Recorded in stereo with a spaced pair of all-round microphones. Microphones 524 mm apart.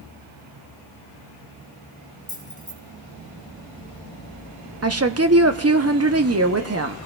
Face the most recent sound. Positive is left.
turn(degrees=-30)  # may be behind; listen again after turning